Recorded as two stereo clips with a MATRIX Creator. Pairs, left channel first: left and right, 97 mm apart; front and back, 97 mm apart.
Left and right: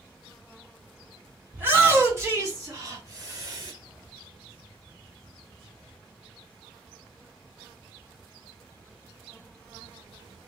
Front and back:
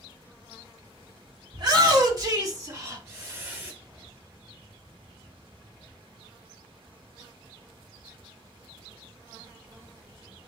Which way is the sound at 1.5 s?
150° right.